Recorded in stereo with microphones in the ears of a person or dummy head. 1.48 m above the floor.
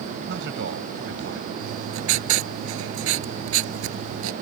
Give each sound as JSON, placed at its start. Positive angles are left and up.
{"t": 0.3, "sound": "a man speaking", "side_deg": -60}
{"t": 1.6, "sound": "writing", "side_deg": -75}